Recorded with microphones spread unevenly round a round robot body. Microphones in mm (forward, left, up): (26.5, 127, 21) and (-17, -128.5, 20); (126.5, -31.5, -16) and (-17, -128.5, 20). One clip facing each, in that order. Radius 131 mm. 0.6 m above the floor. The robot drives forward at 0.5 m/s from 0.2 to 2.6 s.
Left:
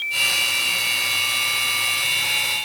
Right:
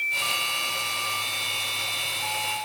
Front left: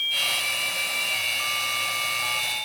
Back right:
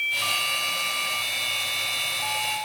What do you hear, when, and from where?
Only background noise.